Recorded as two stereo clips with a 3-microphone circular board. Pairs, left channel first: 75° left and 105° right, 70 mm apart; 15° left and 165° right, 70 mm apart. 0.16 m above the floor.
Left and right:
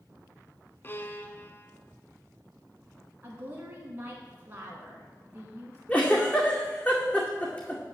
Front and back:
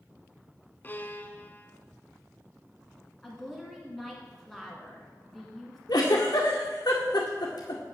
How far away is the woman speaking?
About 1.5 m.